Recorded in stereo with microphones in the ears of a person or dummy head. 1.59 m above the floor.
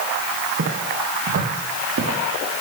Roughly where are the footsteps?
Right.